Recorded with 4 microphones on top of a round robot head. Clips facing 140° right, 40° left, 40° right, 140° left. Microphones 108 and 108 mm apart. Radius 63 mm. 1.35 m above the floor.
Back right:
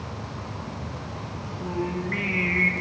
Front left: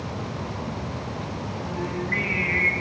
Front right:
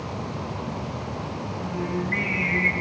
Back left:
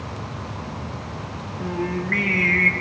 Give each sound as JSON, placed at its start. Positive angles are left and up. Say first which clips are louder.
{"t": 1.6, "sound": "singing", "louder": "back right 3 dB, back left 4 dB", "azimuth_deg": 155, "distance_m": 0.9}